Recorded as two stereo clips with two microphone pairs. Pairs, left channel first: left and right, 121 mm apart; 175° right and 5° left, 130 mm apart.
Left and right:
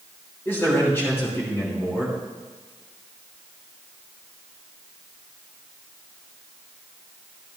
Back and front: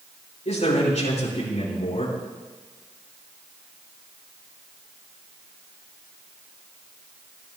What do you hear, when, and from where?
0.5 s a man speaking: 165° left, 5 m